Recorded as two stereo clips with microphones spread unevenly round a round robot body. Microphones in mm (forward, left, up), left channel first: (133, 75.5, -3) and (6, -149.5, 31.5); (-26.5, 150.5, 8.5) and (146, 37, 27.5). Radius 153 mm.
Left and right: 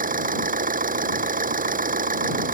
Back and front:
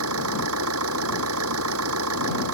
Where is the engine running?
65° right.